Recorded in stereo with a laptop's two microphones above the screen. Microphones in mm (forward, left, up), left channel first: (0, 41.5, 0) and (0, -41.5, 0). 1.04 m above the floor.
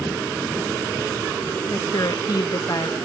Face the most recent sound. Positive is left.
turn(degrees=55)  # may be behind; listen again after turning